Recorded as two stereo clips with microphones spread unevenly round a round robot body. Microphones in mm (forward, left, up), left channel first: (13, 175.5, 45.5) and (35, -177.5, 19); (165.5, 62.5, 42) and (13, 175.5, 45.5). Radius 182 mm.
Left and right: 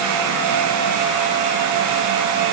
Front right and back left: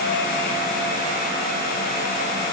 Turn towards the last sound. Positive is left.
No sound to turn to.